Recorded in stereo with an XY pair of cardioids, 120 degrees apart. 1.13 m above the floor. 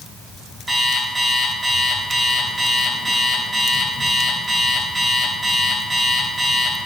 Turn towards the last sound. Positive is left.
turn(degrees=-15)